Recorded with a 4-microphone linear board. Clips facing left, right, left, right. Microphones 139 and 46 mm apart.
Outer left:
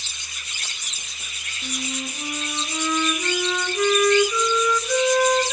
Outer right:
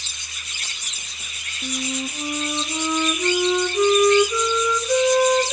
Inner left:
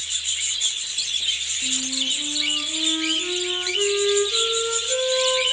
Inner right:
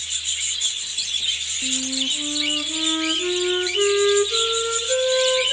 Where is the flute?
20° right (ahead or behind), 1.7 m.